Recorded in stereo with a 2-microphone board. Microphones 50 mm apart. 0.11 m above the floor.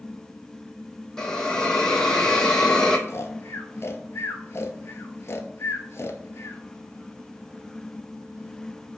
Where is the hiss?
10° left (ahead or behind), 0.9 m.